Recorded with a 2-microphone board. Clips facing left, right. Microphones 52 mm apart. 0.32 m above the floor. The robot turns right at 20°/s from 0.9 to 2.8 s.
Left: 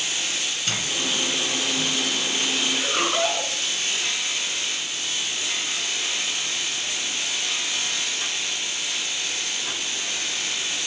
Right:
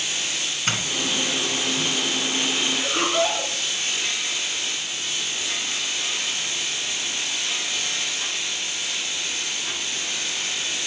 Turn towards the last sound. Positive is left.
turn(degrees=5)  # may be behind; listen again after turning